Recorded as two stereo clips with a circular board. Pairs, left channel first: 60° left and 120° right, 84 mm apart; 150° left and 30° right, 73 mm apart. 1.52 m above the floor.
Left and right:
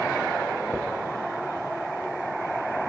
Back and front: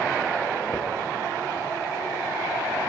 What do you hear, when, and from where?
0.7 s a dropped coin: 155° right, 1.0 m